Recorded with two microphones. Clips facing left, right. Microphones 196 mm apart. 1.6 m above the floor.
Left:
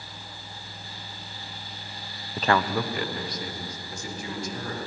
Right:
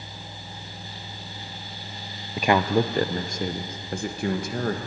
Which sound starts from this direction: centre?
A man speaking, at 2.4 s.